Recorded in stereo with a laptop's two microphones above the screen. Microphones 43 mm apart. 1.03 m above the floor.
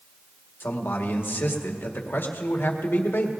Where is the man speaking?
60° left (ahead or behind), 1.6 m.